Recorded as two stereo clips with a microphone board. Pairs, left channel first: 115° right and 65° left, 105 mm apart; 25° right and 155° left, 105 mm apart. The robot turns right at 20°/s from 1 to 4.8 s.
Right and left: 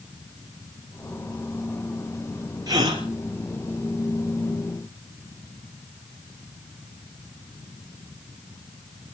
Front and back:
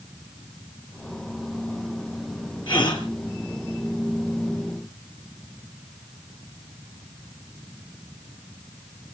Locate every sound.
2.7 s a gasp: 15° left, 4 m; by 3.0 s 25° left, 4 m